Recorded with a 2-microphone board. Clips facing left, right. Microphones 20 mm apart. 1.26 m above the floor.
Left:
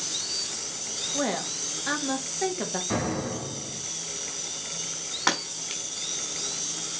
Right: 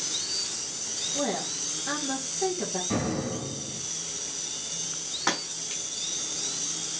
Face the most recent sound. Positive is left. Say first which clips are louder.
# left 3 dB
turn(degrees=25)  # may be behind; listen again after turning